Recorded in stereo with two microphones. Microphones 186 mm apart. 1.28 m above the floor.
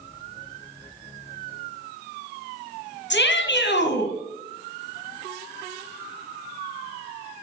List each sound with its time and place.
3.1 s a shout: 70° left (ahead or behind), 1.5 m